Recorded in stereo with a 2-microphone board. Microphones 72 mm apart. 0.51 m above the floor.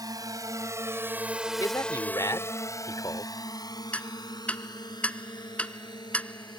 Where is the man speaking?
55° left (ahead or behind).